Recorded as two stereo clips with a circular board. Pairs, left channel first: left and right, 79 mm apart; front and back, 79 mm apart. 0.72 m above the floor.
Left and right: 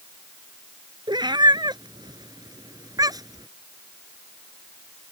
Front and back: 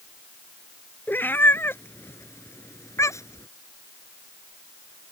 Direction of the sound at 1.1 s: 65° right.